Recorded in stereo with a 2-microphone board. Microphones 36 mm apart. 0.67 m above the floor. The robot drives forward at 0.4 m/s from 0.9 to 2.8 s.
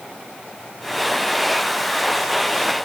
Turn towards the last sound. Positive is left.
No sound to turn to.